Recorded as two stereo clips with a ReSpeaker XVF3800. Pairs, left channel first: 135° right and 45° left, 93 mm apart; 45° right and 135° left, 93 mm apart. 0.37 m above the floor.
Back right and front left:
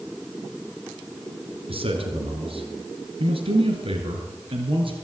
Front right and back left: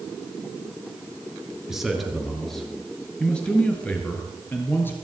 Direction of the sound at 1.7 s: 50° left.